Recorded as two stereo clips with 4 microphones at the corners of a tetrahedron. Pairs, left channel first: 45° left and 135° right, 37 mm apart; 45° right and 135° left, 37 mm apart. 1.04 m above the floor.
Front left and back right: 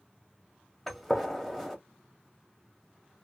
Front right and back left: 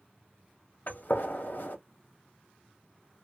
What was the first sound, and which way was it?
A gunshot, 40° right.